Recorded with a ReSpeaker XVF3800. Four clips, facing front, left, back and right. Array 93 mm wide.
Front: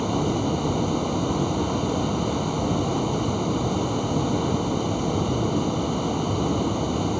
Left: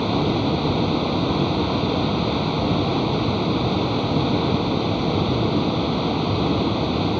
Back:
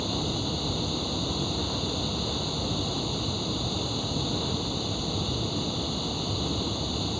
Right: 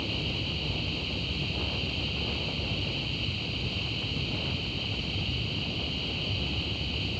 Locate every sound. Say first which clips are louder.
0.0 s running water: left 14 dB, front 7 dB; 70° left